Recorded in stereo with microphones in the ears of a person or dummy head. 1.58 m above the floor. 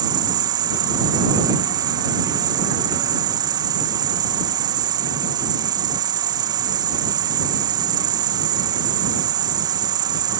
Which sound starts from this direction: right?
An insect, at 0.0 s.